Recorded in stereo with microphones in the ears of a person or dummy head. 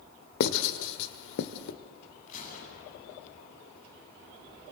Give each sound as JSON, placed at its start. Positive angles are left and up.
{"t": 0.4, "sound": "writing", "side_deg": 65, "distance_m": 1.9}
{"t": 2.3, "sound": "a gunshot", "side_deg": 50, "distance_m": 9.0}